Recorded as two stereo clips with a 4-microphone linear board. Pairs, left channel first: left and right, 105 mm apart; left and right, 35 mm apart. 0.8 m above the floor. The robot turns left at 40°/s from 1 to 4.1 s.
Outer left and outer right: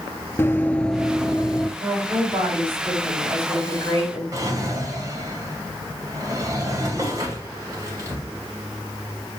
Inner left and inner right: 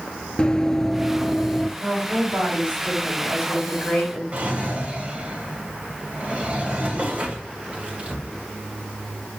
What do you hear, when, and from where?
0.4 s running footsteps: 20° left (ahead or behind), 0.8 m; by 1.7 s centre (ahead or behind), 0.9 m
1.8 s a woman speaking: 125° right, 6 m; by 4.2 s 140° left, 6 m
4.3 s a drawer: 35° right (ahead or behind), 2.5 m